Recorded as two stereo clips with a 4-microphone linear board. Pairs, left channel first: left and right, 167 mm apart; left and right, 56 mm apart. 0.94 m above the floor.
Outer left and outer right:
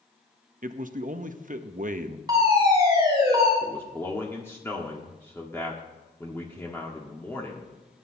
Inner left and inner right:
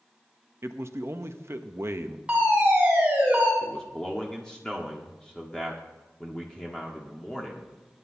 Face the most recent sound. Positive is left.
turn(degrees=15)  # may be behind; listen again after turning